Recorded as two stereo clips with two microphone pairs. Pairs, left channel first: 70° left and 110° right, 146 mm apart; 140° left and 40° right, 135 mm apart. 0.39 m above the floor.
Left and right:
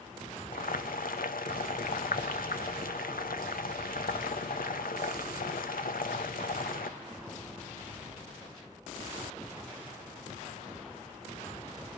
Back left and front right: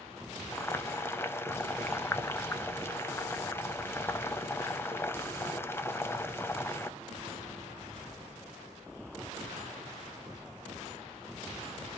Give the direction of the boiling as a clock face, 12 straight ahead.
10 o'clock.